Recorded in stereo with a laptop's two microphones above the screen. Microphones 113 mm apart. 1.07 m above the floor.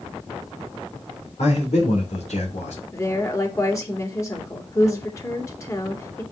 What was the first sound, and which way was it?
A man speaking, 75° left (ahead or behind).